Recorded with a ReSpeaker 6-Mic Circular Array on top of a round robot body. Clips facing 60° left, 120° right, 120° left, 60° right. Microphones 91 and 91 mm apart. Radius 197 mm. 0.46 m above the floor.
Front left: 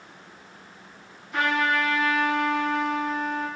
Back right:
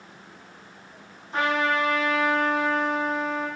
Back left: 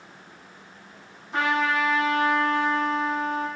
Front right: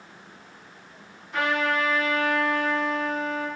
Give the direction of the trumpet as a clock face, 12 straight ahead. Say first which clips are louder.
Even, back left 1 dB; 6 o'clock.